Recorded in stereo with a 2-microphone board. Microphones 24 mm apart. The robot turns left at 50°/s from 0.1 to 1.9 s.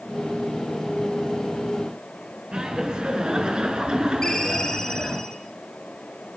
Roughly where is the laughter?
Right.